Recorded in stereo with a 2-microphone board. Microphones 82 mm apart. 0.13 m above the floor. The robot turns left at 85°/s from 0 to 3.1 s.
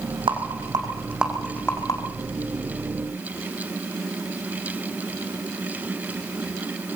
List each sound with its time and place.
0.3 s a rattle: 80° right, 4.5 m; by 2.0 s 50° left (ahead or behind), 4.5 m